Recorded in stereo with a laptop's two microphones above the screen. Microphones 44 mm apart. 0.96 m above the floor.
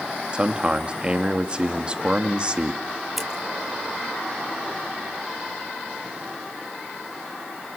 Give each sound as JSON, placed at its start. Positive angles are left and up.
{"t": 0.3, "sound": "a man speaking", "side_deg": -25, "distance_m": 1.9}
{"t": 3.2, "sound": "scissors", "side_deg": -5, "distance_m": 2.5}